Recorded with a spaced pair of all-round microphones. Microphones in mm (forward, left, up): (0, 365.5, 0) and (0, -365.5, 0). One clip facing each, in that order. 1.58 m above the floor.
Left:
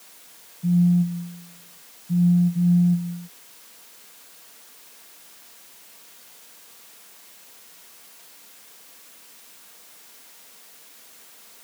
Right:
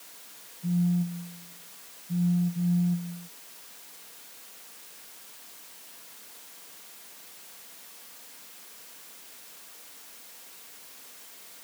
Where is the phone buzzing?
50° left (ahead or behind).